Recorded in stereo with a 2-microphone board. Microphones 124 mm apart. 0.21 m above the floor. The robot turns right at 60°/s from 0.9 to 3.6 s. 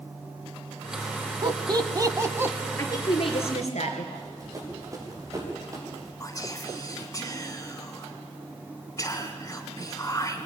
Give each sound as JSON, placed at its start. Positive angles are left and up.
{"t": 1.4, "sound": "laughter", "side_deg": -35, "distance_m": 1.2}
{"t": 2.8, "sound": "a woman speaking", "azimuth_deg": 25, "distance_m": 3.5}
{"t": 4.2, "sound": "running footsteps", "side_deg": -25, "distance_m": 8.0}
{"t": 6.2, "sound": "whispering", "side_deg": 25, "distance_m": 2.0}